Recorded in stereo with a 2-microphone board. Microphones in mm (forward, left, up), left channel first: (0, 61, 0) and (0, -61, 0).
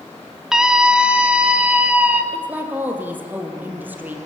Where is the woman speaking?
15° right (ahead or behind), 4 m.